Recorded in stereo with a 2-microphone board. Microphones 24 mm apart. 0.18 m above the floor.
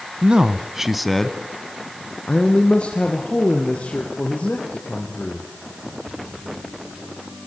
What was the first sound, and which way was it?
A man speaking, 40° right (ahead or behind).